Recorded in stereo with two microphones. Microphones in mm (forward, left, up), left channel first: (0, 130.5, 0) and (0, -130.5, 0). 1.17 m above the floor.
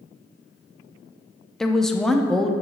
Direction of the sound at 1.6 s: Centre (ahead or behind).